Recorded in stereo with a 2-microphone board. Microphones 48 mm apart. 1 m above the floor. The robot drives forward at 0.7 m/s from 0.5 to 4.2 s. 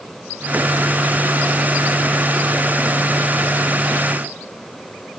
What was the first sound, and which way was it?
Only background noise.